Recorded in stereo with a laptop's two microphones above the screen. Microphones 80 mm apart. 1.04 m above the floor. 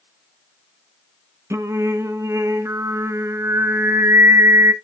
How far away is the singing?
About 0.7 m.